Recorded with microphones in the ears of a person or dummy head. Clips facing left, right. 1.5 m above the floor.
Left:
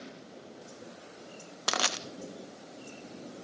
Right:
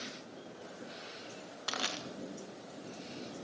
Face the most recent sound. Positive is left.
turn(degrees=65)  # may be behind; listen again after turning